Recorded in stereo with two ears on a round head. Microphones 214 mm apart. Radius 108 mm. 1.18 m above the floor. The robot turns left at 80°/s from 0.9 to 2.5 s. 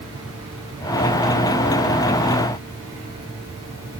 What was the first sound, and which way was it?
Only background noise.